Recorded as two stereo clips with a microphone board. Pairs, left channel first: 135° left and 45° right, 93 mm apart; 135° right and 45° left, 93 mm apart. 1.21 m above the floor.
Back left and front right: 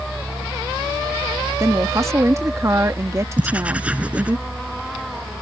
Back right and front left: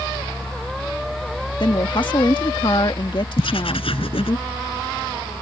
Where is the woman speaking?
105° right.